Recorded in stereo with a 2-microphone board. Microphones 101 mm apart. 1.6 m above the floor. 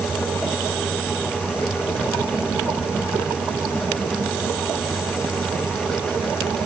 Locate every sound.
Only background noise.